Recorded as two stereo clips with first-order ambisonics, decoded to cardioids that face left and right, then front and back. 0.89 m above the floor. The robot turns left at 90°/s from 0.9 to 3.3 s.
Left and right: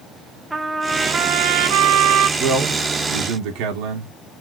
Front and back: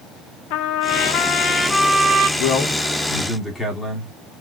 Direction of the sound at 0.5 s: 10° right.